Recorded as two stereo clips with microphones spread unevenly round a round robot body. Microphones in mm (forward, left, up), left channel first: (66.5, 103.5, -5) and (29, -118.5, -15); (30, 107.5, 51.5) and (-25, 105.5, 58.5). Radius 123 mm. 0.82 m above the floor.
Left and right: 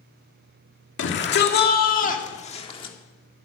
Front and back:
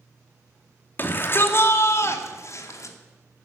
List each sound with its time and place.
1.0 s a shout: 50° left, 2 m; by 3.0 s 10° left, 2.5 m